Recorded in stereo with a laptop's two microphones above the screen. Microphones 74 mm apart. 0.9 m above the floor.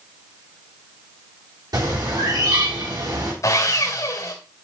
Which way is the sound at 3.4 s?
50° left (ahead or behind).